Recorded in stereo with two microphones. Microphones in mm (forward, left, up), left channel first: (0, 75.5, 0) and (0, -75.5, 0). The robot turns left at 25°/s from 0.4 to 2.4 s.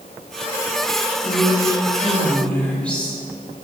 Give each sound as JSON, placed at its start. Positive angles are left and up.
{"t": 1.2, "sound": "a woman speaking", "azimuth_deg": 35, "distance_m": 5.0}